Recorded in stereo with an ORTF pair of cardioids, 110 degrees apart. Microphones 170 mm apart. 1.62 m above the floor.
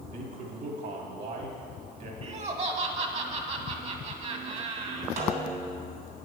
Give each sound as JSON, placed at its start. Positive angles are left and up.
{"t": 0.1, "sound": "a man speaking", "azimuth_deg": -55, "distance_m": 2.0}
{"t": 2.2, "sound": "laughter", "azimuth_deg": -40, "distance_m": 1.6}
{"t": 5.2, "sound": "a snare drum", "azimuth_deg": -60, "distance_m": 3.0}